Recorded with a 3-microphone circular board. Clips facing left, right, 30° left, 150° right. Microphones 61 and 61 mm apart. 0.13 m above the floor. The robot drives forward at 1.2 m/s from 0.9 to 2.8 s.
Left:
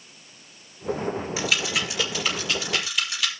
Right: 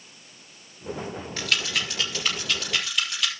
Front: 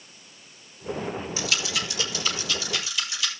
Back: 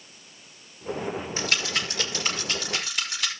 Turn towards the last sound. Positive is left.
turn(degrees=175)